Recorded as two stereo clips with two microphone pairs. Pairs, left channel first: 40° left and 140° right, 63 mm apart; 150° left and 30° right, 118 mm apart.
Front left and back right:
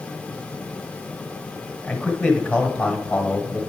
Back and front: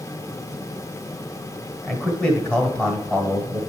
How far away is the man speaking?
About 1.3 m.